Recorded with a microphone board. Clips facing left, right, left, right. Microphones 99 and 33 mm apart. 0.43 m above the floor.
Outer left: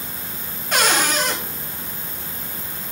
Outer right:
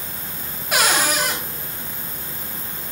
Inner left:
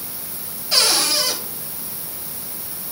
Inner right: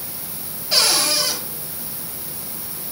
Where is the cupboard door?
10° right (ahead or behind), 2 m.